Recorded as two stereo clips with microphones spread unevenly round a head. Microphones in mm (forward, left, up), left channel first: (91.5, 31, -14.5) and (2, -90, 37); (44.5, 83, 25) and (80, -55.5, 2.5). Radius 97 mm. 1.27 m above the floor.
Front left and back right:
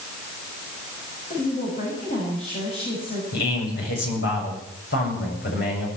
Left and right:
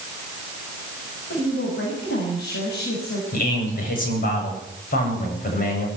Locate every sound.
1.3 s a woman speaking: 110° left, 7 m
3.3 s a man speaking: 85° left, 8.5 m